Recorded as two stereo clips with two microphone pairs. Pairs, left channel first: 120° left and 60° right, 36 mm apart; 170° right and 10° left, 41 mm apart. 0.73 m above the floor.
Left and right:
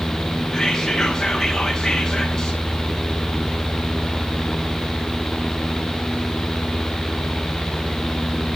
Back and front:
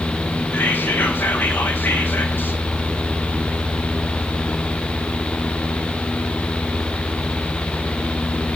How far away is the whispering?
About 1.0 m.